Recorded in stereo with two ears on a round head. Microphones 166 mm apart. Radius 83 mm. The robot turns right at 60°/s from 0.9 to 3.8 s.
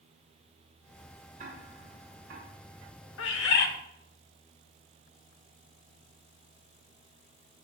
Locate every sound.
1.4 s ticking: 45° right (ahead or behind), 7 m; by 2.5 s 70° right (ahead or behind), 7 m
3.2 s a bird: 85° left, 1.2 m; by 3.7 s 115° left, 1.2 m